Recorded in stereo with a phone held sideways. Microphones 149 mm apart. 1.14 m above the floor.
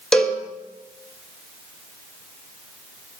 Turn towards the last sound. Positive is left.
turn(degrees=5)  # may be behind; listen again after turning